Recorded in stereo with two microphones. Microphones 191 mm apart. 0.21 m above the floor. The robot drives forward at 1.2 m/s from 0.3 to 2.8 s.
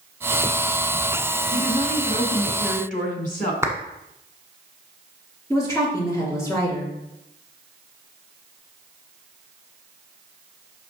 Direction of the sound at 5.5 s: 15° left (ahead or behind).